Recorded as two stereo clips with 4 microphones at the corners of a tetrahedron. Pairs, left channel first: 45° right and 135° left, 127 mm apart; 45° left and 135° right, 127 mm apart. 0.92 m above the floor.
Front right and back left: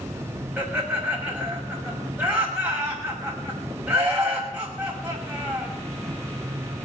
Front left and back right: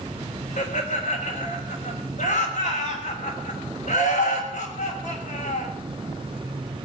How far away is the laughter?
About 6 m.